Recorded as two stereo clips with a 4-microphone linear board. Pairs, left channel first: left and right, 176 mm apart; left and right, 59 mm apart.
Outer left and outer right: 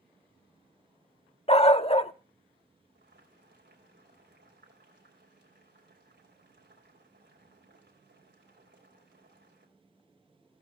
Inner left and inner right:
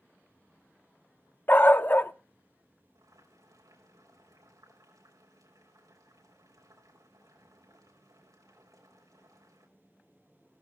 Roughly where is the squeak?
No squeak in this recording.